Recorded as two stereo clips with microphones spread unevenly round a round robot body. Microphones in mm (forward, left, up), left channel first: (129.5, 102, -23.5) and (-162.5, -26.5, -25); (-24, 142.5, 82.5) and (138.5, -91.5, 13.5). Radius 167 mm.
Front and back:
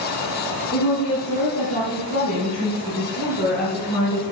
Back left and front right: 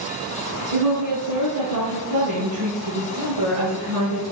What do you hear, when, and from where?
0.7 s a woman speaking: 40° right, 4 m; by 4.2 s 20° right, 6.5 m